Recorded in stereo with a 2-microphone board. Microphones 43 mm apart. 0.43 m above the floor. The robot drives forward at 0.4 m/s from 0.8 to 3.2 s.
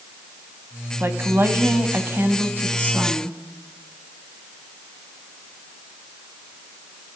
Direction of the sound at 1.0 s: 60° right (ahead or behind).